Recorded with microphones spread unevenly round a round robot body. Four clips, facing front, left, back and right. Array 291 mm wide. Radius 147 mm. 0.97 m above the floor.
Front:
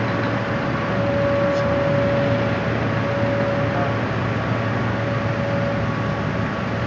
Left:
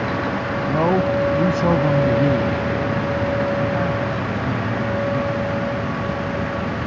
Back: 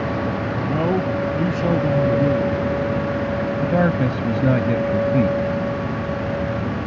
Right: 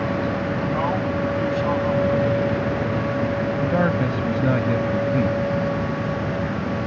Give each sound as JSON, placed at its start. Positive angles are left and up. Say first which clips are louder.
{"t": 0.7, "sound": "a man speaking", "louder": "left 8 dB, back 3 dB", "azimuth_deg": 120}
{"t": 3.6, "sound": "a man speaking", "louder": "right 1 dB, back 3 dB", "azimuth_deg": -155}